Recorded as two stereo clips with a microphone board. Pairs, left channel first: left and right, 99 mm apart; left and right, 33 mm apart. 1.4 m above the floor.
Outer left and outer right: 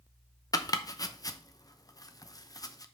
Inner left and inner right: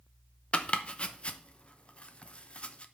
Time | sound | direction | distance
0.5 | chopping | 40° left (ahead or behind) | 0.7 m